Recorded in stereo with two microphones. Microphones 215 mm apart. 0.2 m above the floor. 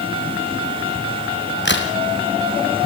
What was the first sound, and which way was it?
A crack, 55° left (ahead or behind).